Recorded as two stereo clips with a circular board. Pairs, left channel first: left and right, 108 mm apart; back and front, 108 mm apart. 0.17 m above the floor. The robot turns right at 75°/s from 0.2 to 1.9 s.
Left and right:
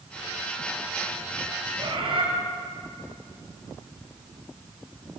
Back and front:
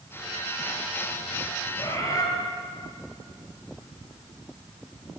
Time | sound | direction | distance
1.8 | a bird | 130° right | 3 m